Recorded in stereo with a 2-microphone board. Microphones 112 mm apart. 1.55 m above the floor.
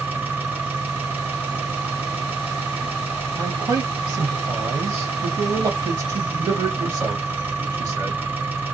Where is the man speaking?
35° right (ahead or behind), 1.5 m.